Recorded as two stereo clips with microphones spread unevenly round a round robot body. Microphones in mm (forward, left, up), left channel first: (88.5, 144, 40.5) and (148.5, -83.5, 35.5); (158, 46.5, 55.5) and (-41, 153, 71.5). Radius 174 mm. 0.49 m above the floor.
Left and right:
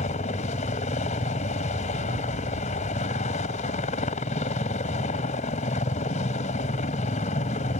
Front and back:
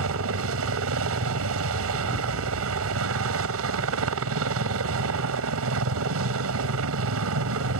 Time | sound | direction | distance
0.0 | a helicopter | 170° left | ?